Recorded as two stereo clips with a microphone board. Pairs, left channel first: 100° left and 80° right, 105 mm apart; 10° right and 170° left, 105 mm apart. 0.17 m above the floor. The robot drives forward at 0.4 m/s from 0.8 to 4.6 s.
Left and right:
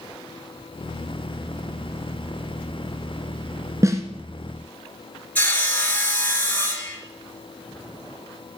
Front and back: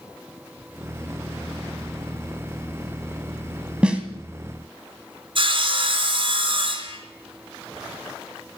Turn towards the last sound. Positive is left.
turn(degrees=170)